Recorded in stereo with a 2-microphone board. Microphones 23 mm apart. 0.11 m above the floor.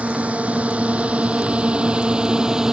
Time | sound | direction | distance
0.0 | a drone | 75° right (ahead or behind) | ?